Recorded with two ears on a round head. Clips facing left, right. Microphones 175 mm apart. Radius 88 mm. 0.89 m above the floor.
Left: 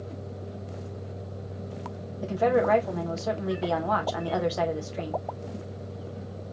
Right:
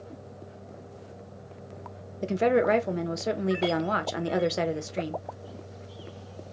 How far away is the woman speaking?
About 0.8 m.